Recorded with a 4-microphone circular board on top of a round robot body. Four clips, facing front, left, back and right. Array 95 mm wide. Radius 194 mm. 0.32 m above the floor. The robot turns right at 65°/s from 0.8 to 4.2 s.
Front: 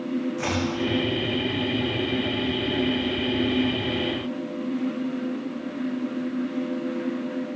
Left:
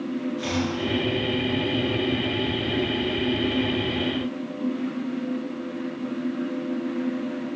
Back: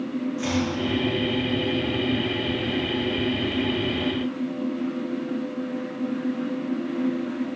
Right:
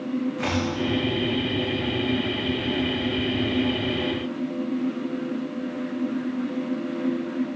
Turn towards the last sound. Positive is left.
turn(degrees=170)